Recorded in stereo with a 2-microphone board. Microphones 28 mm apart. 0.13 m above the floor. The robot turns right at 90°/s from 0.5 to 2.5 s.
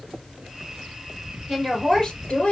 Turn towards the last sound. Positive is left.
turn(degrees=80)